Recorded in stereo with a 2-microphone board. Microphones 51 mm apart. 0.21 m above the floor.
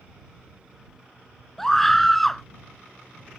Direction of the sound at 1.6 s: 5° left (ahead or behind).